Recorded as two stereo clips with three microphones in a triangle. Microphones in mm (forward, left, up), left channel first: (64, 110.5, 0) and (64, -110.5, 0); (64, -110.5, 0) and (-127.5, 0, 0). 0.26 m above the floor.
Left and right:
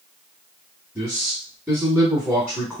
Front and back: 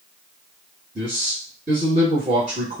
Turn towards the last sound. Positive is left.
turn(degrees=180)